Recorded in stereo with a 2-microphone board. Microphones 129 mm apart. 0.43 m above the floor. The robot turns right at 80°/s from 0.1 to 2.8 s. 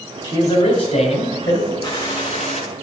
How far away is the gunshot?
About 3 m.